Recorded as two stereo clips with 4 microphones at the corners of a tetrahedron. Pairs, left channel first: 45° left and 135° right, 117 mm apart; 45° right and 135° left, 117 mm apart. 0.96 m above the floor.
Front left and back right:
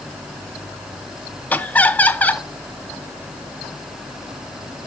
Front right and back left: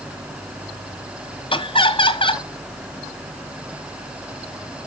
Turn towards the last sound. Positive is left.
turn(degrees=-25)